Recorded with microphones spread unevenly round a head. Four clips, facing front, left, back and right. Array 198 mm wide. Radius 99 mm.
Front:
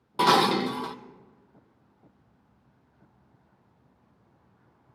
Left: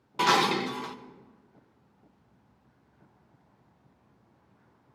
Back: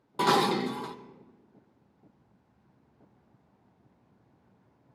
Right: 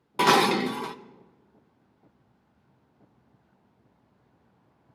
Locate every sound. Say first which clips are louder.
0.2 s dishes clattering: right 4 dB, front 3 dB; 80° right, 0.5 m